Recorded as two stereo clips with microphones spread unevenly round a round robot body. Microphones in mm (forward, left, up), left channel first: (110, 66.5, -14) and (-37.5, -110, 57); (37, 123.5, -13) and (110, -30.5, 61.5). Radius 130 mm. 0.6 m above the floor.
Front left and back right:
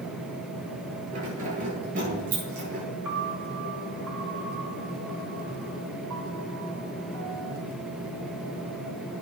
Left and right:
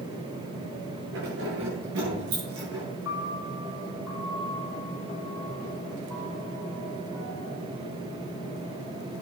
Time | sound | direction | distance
1.1 | keys jangling | 75° right | 9 m
3.0 | a piano | 150° right | 3.5 m